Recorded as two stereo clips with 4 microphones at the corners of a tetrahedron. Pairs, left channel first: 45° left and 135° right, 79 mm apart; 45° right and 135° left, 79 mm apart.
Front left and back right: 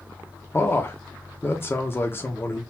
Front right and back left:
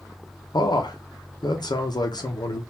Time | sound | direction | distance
0.5 | a man speaking | 15° right | 0.8 m